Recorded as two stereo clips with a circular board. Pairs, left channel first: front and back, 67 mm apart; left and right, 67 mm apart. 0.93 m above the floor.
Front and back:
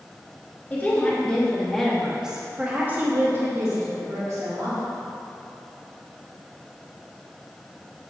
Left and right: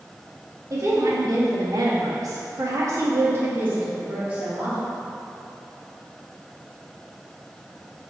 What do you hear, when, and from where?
0.7 s a woman speaking: 60° right, 2.5 m; by 4.8 s 160° right, 3 m